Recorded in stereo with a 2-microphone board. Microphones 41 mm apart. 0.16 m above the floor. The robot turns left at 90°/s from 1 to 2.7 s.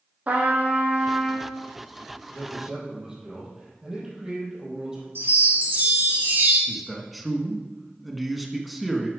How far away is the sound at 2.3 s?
About 4 m.